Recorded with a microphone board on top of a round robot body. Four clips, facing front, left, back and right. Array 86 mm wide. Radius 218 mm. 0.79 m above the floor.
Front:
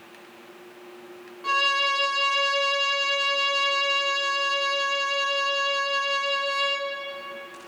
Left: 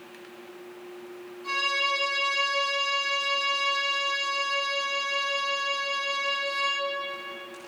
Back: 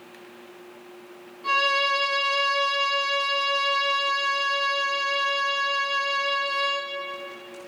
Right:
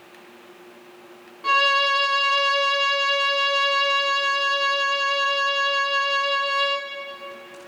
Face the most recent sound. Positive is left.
turn(degrees=-70)